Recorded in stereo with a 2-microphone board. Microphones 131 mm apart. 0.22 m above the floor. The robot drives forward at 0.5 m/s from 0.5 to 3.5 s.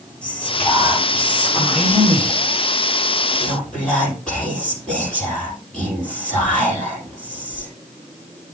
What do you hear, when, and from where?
0.2 s whispering: 10° left (ahead or behind), 7 m; by 7.7 s 5° left (ahead or behind), 8.5 m